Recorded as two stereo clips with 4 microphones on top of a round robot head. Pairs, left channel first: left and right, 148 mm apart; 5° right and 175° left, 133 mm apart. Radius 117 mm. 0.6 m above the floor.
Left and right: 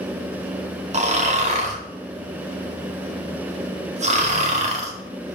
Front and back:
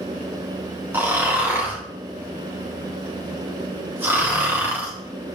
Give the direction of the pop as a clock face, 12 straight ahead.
No pop in this recording.